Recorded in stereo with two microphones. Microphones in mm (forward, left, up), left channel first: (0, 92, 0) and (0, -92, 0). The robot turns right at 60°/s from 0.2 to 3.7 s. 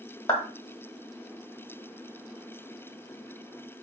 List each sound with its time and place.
0.3 s a clap: 20° left (ahead or behind), 1.1 m; by 0.4 s 25° left (ahead or behind), 1.1 m